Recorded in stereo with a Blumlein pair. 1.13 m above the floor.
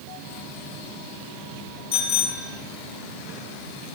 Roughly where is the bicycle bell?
Ahead left.